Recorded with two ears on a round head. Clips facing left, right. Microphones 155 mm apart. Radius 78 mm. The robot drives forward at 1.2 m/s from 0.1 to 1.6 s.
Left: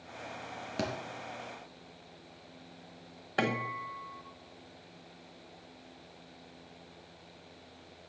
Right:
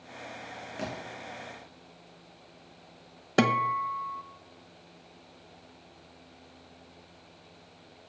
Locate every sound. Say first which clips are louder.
0.8 s a thud: left 2 dB; 45° left (ahead or behind), 3.5 m
3.4 s a guitar: right 7 dB; 50° right (ahead or behind), 1.0 m